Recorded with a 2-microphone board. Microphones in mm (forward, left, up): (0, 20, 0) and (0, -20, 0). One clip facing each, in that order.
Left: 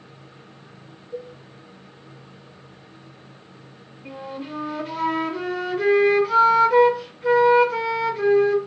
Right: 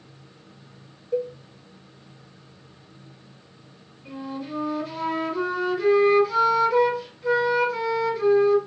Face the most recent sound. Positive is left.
turn(degrees=45)  # may be behind; listen again after turning